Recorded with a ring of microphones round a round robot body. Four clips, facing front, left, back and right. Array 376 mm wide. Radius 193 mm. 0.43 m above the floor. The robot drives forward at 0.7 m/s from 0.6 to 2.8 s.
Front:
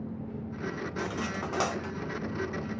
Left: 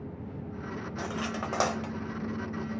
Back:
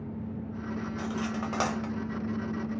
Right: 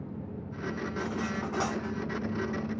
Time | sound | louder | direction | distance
1.0 | cutlery clinking | left 1 dB, even | 75° left | 1.0 m